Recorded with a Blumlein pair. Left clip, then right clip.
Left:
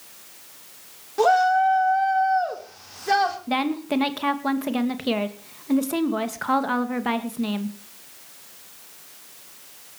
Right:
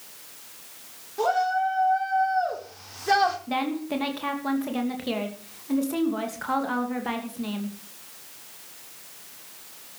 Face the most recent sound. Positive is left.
turn(degrees=20)